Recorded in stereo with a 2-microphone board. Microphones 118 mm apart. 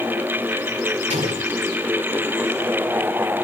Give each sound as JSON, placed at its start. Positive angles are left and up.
{"t": 1.1, "sound": "an explosion", "side_deg": -75, "distance_m": 5.0}